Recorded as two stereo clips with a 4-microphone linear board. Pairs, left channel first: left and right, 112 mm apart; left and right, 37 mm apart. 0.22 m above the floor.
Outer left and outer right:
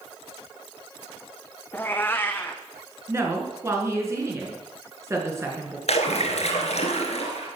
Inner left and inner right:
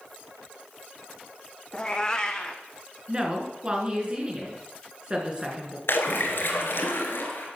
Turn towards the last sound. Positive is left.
turn(degrees=75)  # may be behind; listen again after turning